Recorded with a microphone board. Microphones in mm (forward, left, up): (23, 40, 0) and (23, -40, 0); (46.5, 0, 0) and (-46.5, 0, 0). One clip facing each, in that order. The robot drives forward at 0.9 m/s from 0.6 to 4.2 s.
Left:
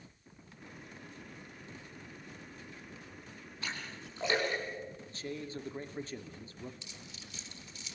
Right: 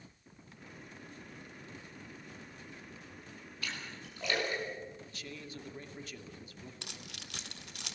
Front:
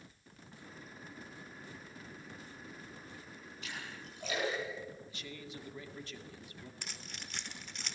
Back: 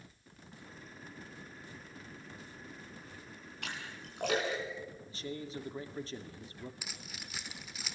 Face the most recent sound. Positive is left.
turn(degrees=-95)